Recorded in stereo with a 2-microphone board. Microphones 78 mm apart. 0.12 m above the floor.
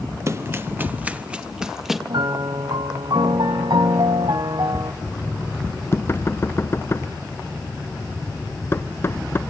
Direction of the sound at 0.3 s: 35° right (ahead or behind).